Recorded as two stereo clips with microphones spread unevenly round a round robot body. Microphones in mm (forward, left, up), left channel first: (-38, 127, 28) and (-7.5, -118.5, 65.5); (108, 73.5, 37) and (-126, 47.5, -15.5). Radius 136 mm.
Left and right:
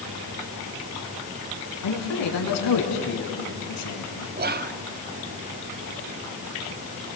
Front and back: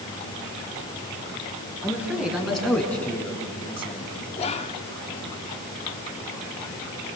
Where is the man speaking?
105° left, 4.5 m; by 4.3 s 70° left, 4 m.